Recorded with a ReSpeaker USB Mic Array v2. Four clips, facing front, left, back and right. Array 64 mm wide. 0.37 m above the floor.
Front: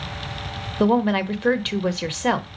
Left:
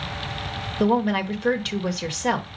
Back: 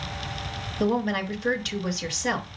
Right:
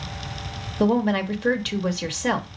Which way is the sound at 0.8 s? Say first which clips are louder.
Even, front 6 dB; 5° right.